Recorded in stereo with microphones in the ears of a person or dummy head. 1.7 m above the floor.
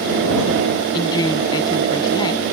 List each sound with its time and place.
0.9 s a woman speaking: 30° left (ahead or behind)